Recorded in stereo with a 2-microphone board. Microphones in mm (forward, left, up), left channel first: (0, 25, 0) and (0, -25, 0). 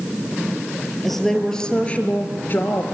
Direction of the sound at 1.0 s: 5° left (ahead or behind).